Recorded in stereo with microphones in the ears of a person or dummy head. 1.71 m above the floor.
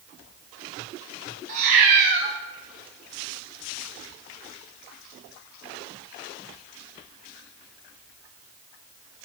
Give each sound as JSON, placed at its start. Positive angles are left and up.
{"t": 1.5, "sound": "a cat meowing", "side_deg": -40, "distance_m": 1.1}